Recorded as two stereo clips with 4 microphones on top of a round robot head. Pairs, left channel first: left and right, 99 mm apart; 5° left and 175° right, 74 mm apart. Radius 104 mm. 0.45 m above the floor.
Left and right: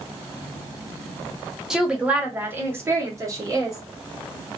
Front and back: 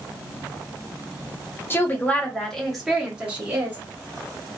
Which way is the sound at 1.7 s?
10° right.